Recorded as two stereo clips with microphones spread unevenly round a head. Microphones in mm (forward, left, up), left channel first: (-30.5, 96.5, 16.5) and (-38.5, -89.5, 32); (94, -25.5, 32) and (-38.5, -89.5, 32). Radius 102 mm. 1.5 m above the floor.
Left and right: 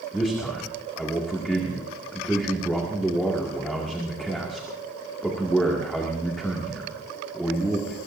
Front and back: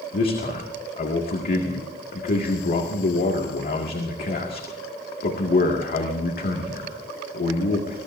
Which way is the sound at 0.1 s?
Straight ahead.